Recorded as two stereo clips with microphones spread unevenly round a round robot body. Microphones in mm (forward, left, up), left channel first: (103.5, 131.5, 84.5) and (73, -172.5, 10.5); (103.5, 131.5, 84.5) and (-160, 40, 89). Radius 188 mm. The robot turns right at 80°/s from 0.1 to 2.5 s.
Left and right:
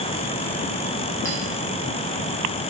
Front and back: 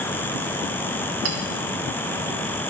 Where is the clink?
170° left, 1.6 m; by 1.4 s straight behind, 1.6 m.